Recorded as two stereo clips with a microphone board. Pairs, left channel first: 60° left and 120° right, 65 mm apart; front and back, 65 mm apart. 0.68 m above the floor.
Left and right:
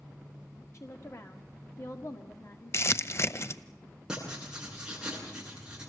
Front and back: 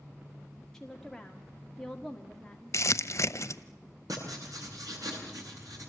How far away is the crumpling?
About 0.8 m.